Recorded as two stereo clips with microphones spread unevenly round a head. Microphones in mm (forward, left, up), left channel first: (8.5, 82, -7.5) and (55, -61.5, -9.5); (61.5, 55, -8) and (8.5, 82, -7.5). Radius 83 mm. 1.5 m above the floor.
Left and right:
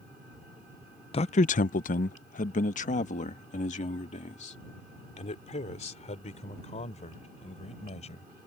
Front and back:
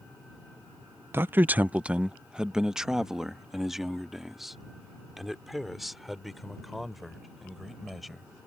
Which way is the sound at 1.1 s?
130° left.